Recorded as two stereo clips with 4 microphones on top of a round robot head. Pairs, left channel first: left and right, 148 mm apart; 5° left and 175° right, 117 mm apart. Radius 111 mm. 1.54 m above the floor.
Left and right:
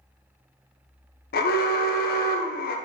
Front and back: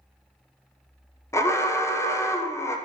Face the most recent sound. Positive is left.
turn(degrees=75)